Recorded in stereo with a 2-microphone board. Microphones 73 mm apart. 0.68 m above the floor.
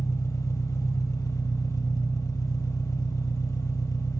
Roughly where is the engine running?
Left.